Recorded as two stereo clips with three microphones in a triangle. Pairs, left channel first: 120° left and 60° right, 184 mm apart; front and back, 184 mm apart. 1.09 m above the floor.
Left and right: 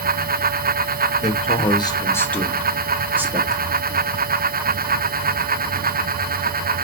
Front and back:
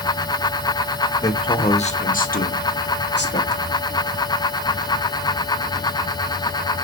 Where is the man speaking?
75° left, 1.1 m; by 3.7 s 10° left, 1.6 m.